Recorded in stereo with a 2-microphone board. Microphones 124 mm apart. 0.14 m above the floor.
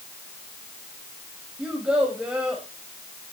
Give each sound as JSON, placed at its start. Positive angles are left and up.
{"t": 1.6, "sound": "a child speaking", "side_deg": -5, "distance_m": 5.0}